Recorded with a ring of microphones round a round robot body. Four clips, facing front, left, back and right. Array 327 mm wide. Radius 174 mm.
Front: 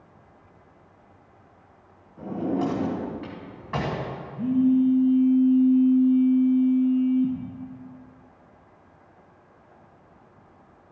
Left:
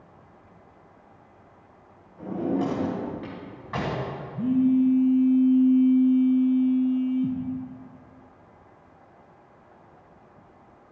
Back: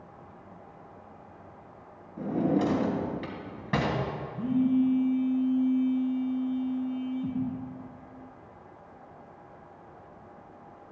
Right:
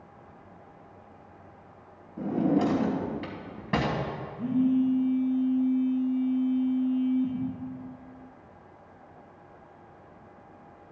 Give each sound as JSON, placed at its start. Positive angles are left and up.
{"t": 2.2, "sound": "a drawer", "azimuth_deg": -130, "distance_m": 3.0}
{"t": 4.4, "sound": "a phone buzzing", "azimuth_deg": 115, "distance_m": 4.0}